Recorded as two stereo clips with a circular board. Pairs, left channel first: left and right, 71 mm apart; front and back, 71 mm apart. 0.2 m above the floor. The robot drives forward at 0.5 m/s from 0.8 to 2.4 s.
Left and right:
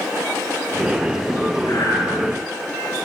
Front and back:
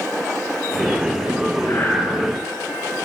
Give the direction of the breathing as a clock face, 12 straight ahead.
10 o'clock.